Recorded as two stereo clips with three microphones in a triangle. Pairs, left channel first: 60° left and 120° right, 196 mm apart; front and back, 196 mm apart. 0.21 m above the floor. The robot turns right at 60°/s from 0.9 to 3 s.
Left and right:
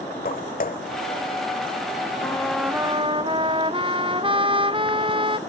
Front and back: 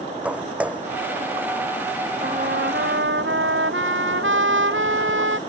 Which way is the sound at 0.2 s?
95° left.